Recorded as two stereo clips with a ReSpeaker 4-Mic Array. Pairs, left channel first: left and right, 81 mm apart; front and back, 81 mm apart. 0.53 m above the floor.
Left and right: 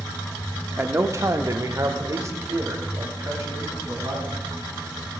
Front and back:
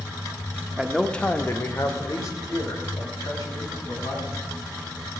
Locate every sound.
0.8 s a man speaking: 115° right, 0.7 m; by 4.4 s 35° right, 4 m